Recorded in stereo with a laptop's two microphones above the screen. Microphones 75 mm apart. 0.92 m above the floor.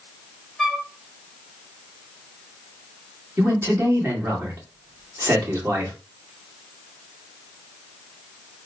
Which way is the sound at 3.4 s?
30° right (ahead or behind).